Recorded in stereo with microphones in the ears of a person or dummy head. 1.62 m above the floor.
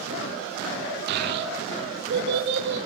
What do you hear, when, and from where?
1.1 s a child speaking: 55° right (ahead or behind), 3 m; by 2.9 s 60° right (ahead or behind), 5.5 m